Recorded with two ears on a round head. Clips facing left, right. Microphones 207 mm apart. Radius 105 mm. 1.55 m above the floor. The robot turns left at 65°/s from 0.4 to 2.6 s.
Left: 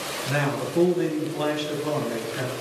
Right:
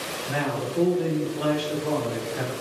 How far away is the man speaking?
About 1.2 m.